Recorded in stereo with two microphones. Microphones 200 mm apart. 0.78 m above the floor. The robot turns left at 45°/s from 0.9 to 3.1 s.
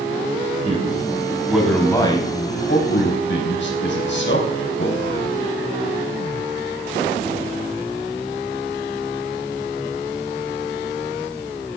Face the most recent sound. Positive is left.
turn(degrees=70)  # may be behind; listen again after turning